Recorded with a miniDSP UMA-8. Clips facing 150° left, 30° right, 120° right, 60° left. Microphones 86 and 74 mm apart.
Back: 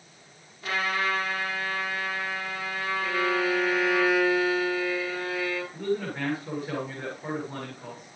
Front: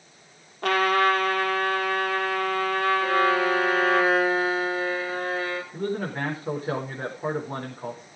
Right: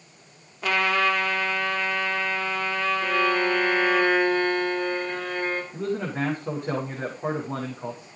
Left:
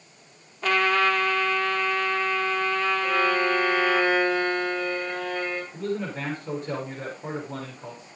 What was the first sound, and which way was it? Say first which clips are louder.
A trumpet: front 8 dB, left 1 dB; 35° right.